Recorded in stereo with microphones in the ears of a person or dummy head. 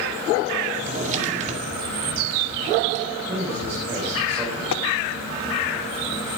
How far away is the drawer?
About 1.7 m.